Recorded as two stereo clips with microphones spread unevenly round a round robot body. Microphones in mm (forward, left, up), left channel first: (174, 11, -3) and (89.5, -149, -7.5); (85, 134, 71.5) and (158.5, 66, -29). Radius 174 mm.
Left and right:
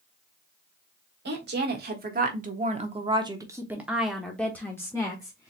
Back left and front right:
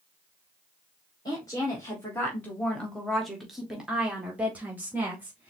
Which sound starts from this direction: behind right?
A woman speaking, at 1.2 s.